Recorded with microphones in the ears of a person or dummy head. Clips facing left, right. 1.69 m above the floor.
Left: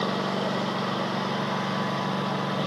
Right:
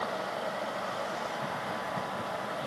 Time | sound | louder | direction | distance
0.0 | a lawn mower | left 7 dB | 65° left (ahead or behind) | ?